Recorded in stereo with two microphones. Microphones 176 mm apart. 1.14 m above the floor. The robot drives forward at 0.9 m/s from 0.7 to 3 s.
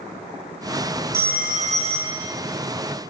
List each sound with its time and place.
1.1 s a phone ringing: 65° right (ahead or behind), 0.7 m; by 2.3 s 25° right (ahead or behind), 1.3 m